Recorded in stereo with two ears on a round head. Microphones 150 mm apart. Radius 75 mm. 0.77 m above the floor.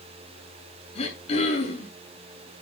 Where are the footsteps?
No footsteps in this recording.